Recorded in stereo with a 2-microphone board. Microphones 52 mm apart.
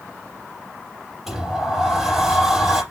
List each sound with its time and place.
1.3 s a sliding door: 5° right (ahead or behind), 4 m